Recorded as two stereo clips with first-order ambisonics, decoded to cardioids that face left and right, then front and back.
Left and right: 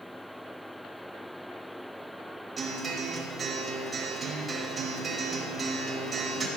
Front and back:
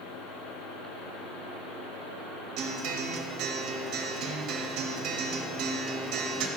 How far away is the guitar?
About 0.9 m.